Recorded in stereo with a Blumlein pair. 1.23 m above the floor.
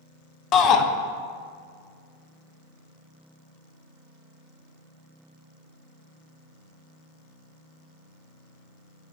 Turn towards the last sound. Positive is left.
turn(degrees=30)